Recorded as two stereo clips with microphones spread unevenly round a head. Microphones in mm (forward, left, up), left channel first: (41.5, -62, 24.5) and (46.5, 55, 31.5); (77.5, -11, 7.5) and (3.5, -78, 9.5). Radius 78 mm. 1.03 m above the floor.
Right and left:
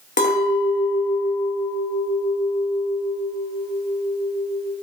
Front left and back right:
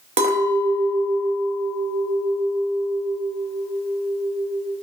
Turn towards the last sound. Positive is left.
turn(degrees=-135)